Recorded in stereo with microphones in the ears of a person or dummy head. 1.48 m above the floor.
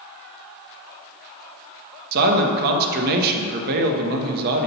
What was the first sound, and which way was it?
A man speaking, 50° right (ahead or behind).